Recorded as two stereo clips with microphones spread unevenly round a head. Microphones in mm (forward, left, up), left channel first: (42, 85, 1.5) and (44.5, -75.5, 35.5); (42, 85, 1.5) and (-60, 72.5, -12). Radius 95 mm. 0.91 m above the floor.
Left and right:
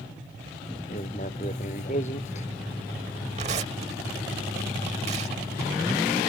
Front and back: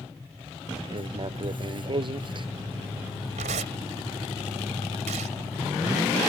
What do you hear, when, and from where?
0.9 s writing: 145° left
3.4 s tearing paper: 145° right